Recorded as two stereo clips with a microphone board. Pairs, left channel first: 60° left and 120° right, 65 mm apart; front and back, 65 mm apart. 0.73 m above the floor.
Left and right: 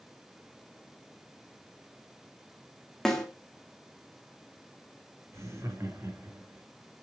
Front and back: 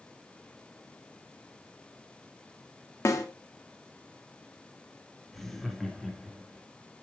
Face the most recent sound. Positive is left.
turn(degrees=-85)